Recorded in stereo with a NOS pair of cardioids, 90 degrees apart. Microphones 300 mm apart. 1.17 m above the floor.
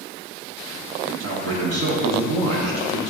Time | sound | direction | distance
1.2 | a man speaking | 60° right | 1.2 m